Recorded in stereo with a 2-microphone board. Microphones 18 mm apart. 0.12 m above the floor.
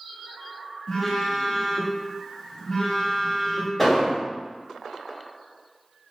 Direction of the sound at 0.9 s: 20° left (ahead or behind).